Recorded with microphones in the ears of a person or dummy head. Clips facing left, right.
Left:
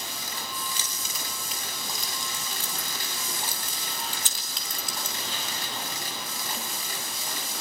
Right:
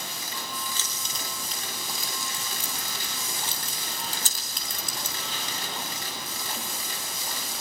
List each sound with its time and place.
0.8 s keys jangling: 15° left (ahead or behind), 4.5 m; by 5.2 s 45° right (ahead or behind), 4 m